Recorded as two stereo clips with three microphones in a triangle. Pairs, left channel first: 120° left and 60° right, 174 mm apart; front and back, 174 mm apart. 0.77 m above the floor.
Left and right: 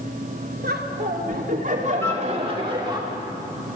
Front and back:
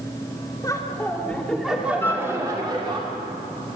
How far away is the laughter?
About 2.5 m.